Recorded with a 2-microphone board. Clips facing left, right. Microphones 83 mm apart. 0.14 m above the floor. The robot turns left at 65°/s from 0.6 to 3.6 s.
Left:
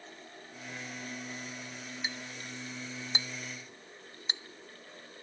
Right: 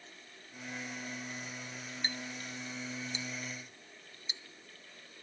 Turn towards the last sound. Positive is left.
turn(degrees=70)  # may be behind; listen again after turning